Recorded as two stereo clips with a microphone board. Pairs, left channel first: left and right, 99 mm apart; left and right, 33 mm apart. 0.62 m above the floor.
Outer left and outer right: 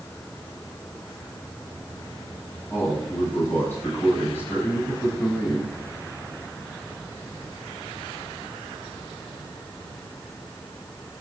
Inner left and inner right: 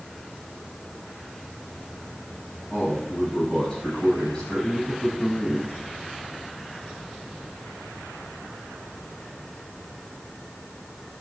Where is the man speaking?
20° left (ahead or behind), 5.5 m.